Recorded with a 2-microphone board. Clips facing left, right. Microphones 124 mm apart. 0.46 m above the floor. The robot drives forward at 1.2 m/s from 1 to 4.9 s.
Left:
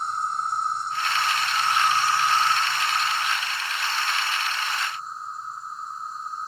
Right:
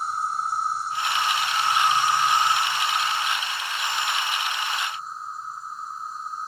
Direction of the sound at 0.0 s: 5° right (ahead or behind).